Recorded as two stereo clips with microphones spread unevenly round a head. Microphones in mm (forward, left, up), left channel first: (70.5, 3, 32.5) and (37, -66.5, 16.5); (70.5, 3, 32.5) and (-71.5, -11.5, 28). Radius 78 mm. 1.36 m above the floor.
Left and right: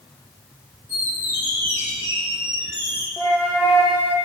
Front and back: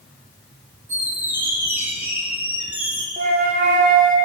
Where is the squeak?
110° left, 1.1 m.